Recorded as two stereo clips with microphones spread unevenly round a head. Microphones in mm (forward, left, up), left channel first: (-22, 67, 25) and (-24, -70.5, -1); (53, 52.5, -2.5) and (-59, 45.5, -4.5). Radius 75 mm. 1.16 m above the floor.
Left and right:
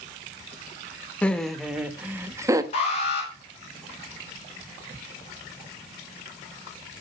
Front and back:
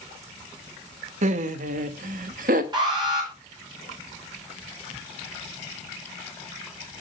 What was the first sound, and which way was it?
Laughter, 175° left.